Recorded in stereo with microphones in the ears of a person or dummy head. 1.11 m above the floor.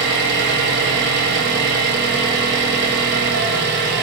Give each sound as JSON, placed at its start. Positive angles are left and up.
{"t": 0.0, "sound": "an engine running", "side_deg": -55, "distance_m": 0.8}